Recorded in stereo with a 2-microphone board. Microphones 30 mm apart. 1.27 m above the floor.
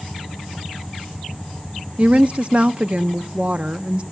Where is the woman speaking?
40° right (ahead or behind), 0.7 m.